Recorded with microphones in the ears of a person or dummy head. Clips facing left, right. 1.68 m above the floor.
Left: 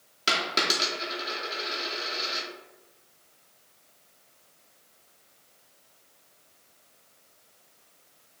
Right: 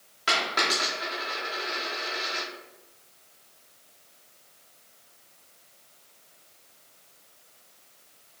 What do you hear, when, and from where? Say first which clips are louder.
0.3 s a dropped coin: even; 25° left (ahead or behind), 2 m